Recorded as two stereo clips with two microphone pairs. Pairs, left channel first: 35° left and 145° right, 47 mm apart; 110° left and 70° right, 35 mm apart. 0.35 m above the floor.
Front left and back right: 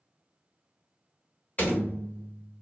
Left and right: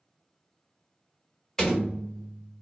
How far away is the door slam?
About 1.1 m.